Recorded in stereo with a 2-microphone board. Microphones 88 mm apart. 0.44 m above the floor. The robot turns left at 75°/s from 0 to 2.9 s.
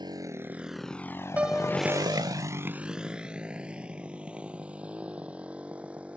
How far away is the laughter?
I don't hear laughter.